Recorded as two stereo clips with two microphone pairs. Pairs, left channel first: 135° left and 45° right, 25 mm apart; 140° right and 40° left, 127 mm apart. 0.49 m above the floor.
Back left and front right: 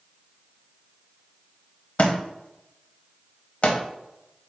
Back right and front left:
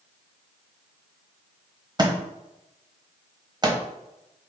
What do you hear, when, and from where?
2.0 s a thud: 100° left, 0.6 m